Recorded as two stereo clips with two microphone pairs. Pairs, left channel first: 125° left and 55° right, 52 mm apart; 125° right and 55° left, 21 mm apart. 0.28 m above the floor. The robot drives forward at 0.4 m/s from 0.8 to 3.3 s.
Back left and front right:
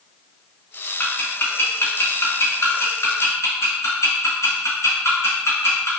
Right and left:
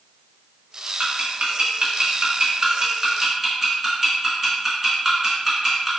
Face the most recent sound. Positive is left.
turn(degrees=135)